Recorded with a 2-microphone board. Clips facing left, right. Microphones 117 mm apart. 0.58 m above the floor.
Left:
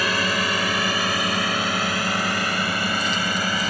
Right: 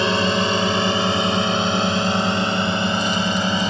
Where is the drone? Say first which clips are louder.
Right 5 dB; 25° right (ahead or behind).